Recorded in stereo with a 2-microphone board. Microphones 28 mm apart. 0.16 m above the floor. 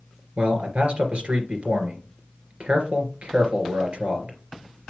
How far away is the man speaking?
About 2.5 m.